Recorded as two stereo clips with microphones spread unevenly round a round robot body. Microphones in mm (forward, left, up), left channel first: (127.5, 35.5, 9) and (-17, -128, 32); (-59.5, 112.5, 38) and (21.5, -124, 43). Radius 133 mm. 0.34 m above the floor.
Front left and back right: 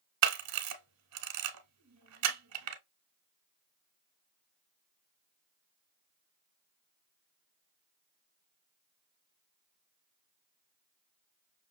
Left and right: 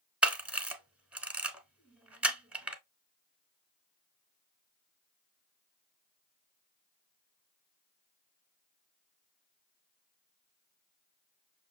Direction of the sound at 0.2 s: 155° right.